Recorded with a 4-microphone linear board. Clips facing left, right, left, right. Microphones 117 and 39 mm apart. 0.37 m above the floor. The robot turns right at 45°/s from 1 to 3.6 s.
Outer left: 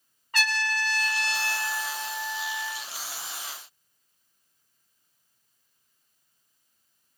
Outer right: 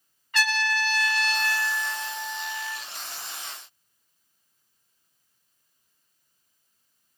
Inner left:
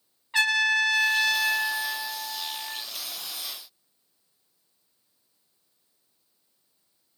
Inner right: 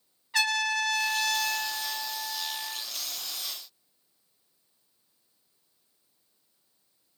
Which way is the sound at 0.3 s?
95° left.